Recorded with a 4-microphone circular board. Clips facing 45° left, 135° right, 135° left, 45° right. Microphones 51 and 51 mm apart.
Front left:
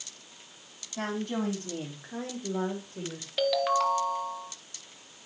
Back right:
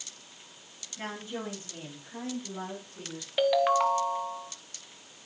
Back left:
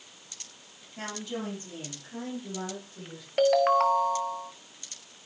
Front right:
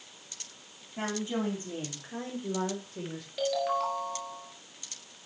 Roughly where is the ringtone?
Behind left.